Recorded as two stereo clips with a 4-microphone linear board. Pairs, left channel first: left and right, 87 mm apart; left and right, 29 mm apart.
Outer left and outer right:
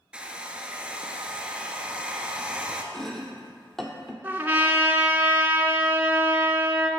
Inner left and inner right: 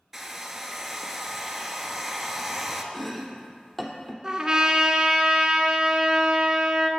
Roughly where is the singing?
No singing in this recording.